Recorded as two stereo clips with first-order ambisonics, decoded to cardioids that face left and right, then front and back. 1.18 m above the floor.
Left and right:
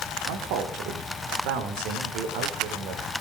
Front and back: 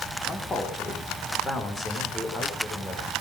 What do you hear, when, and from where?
0.3 s a man speaking: 75° right, 4 m